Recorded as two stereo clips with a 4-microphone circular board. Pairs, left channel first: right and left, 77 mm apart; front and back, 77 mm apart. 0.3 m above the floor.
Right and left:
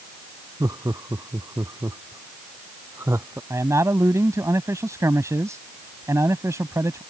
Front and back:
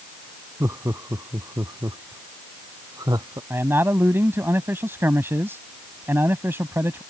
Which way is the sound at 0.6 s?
130° left.